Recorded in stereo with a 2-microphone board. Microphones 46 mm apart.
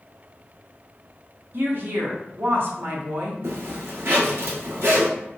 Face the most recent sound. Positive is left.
turn(degrees=-60)  # may be behind; listen again after turning